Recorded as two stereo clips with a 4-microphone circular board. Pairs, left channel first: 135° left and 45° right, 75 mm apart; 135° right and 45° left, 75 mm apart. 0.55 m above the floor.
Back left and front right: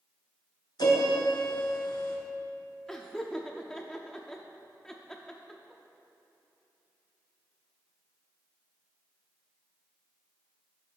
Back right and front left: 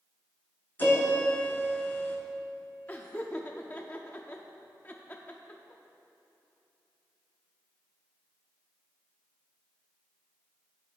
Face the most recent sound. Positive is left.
turn(degrees=-150)